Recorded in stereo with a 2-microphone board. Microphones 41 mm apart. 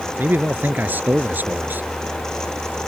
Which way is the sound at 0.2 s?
45° right (ahead or behind).